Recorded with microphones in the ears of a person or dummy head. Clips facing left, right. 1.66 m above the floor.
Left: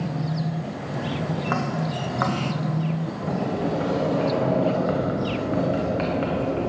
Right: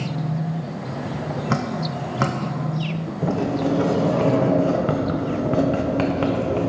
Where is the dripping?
35° right (ahead or behind), 0.8 m.